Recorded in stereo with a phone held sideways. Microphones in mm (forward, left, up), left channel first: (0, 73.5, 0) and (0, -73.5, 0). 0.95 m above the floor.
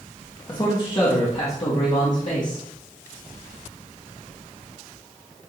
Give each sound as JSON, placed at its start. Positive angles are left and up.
{"t": 0.5, "sound": "a man speaking", "side_deg": 30, "distance_m": 1.5}